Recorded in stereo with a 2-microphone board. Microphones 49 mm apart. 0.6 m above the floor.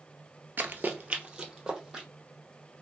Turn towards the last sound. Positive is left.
turn(degrees=-10)  # may be behind; listen again after turning